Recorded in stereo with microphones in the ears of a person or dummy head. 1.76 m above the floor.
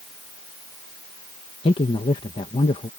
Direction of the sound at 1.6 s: 30° left (ahead or behind).